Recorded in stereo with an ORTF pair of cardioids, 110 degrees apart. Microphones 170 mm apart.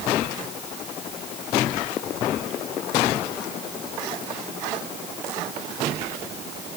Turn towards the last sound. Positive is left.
No sound to turn to.